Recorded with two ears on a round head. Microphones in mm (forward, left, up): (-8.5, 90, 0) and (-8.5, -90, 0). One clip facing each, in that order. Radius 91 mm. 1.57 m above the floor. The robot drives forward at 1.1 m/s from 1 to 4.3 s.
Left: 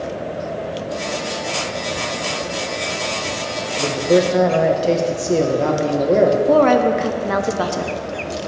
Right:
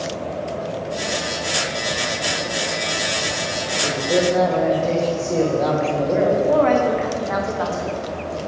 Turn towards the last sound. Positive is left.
turn(degrees=50)  # may be behind; listen again after turning